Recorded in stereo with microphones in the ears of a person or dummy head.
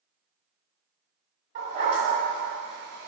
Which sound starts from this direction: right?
A dog barking, at 1.6 s.